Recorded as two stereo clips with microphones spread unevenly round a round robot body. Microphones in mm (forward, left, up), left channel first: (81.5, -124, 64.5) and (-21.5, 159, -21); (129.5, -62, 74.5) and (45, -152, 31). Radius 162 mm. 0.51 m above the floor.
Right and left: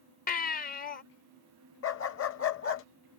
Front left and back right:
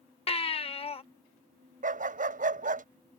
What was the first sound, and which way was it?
A baby crying, straight ahead.